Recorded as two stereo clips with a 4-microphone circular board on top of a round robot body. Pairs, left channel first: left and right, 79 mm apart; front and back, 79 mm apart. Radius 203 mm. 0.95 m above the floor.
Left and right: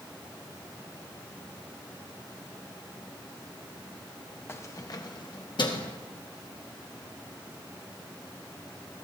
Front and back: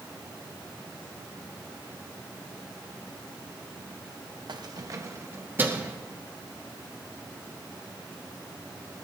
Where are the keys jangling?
150° left, 1.0 m; by 6.0 s 105° left, 1.9 m.